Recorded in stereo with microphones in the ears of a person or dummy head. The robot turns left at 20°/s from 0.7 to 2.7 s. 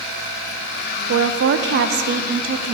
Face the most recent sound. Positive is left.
turn(degrees=-145)